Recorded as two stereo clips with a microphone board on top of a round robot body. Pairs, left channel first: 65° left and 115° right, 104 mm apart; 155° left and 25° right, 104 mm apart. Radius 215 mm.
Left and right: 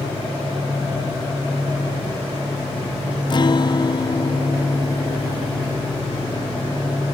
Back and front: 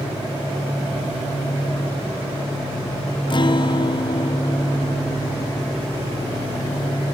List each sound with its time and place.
3.3 s a guitar: 115° left